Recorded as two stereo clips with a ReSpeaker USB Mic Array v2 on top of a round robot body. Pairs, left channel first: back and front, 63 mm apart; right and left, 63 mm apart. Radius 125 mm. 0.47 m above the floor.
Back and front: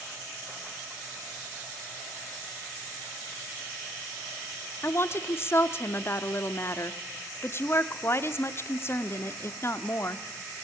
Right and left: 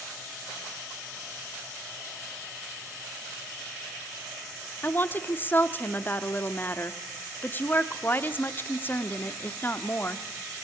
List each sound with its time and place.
4.8 s a woman speaking: 140° right, 1.1 m